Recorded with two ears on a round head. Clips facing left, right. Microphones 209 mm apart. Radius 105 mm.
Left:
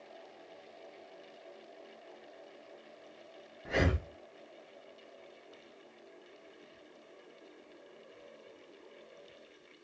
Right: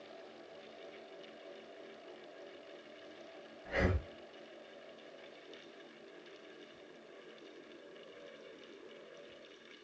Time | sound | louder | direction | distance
3.6 | breathing | left 3 dB | 65° left (ahead or behind) | 0.6 m